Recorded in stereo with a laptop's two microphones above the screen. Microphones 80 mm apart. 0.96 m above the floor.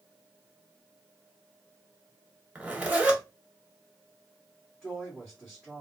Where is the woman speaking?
10° left (ahead or behind), 1.7 m.